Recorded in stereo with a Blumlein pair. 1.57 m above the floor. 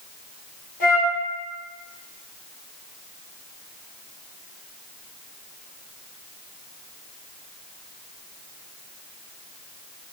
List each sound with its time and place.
0.8 s a flute: 50° left, 1.4 m